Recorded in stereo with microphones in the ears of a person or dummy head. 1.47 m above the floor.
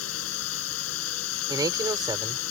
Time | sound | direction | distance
0.0 | a drone | 90° left | ?
1.5 | a man speaking | 15° right (ahead or behind) | ?